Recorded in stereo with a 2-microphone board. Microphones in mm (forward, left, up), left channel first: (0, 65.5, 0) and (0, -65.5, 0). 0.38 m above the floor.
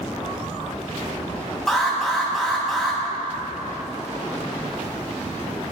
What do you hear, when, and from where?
1.7 s an alarm: centre (ahead or behind), 2.5 m